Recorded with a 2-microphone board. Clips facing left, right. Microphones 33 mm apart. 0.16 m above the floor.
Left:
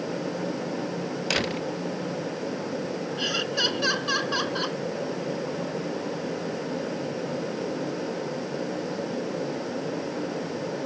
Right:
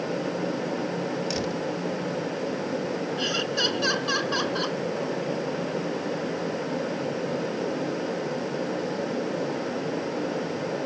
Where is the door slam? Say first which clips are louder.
Left 2 dB; 55° left (ahead or behind).